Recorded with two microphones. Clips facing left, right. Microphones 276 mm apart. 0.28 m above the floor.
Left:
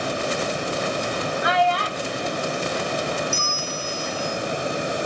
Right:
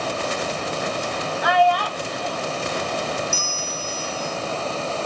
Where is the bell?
65° left (ahead or behind), 3 m.